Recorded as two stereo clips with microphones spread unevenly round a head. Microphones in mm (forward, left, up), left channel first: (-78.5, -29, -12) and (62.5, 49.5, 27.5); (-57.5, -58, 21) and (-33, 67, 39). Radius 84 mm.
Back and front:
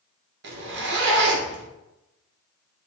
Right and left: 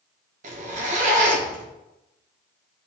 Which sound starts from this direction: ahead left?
A zipper, at 0.4 s.